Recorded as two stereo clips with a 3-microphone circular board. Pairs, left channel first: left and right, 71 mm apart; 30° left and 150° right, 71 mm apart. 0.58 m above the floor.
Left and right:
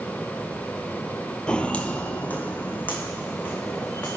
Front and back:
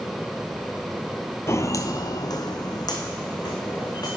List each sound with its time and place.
1.5 s footsteps: 20° left, 0.7 m; by 4.2 s 30° left, 3 m